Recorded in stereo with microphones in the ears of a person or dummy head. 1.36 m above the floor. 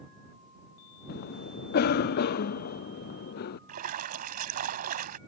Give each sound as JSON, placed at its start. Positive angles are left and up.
{"t": 1.1, "sound": "a cough", "side_deg": 55}
{"t": 3.7, "sound": "a splash", "side_deg": -45}